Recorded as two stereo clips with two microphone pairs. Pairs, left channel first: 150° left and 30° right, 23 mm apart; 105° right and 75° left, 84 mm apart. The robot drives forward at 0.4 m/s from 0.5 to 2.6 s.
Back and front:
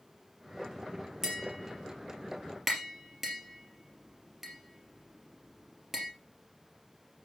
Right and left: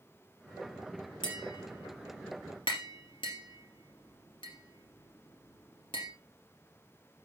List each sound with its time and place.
1.2 s tapping: 100° right, 3 m; by 6.1 s 110° right, 3 m